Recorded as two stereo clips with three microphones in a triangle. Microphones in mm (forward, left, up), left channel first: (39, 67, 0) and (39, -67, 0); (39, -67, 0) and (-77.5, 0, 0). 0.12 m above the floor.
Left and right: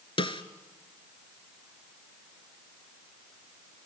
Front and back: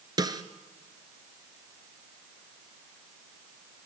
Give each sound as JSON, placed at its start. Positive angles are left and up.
{"t": 0.2, "sound": "a snare drum", "azimuth_deg": 110, "distance_m": 1.1}